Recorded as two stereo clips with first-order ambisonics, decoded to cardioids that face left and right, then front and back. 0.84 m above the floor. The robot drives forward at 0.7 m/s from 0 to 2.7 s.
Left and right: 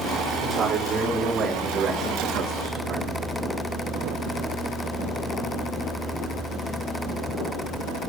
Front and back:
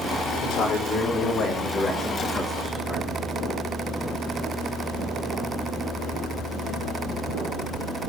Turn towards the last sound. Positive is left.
turn(degrees=-90)